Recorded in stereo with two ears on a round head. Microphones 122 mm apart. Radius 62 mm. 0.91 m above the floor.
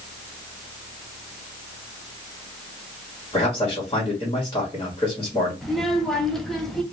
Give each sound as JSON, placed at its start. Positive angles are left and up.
{"t": 3.3, "sound": "a man speaking", "side_deg": 25, "distance_m": 1.4}
{"t": 5.6, "sound": "a child speaking", "side_deg": 0, "distance_m": 1.0}